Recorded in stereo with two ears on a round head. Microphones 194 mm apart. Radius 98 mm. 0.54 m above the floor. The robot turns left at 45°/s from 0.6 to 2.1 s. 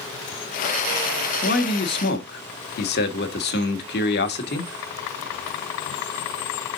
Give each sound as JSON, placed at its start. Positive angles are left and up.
{"t": 1.4, "sound": "a man speaking", "azimuth_deg": 100, "distance_m": 1.1}